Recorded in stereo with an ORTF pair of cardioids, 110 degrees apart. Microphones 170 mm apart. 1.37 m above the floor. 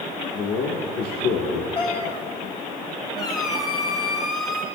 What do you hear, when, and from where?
0.3 s a man speaking: 65° left, 1.7 m
1.8 s a cat meowing: 35° left, 1.7 m
3.2 s a squeak: 25° left, 4 m